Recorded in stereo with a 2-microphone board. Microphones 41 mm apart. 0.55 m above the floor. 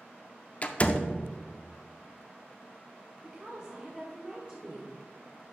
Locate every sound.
0.6 s a door slam: 35° left (ahead or behind), 0.5 m
3.2 s a woman speaking: 25° right (ahead or behind), 1.3 m